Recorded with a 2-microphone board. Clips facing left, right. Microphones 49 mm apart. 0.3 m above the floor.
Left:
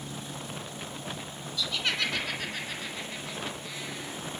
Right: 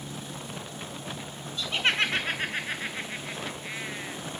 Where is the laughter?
35° right (ahead or behind), 3.5 m.